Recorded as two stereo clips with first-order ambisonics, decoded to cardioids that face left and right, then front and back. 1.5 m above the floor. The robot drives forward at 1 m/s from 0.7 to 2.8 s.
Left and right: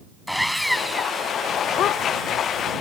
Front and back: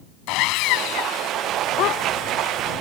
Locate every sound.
0.3 s sawing: straight ahead; by 1.3 s 5° left
1.8 s a dog barking: 40° left